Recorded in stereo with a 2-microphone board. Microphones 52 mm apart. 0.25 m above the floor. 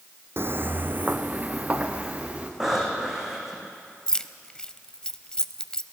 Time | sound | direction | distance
0.4 | footsteps | 50° right (ahead or behind) | 0.7 m
2.6 | breathing | 10° right (ahead or behind) | 3.5 m
4.1 | keys jangling | 15° left (ahead or behind) | 0.6 m